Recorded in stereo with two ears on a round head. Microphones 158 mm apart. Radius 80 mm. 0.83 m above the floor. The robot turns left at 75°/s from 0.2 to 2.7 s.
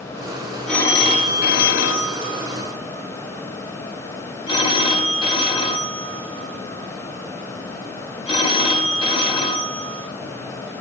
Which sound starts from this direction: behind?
A phone ringing, at 0.7 s.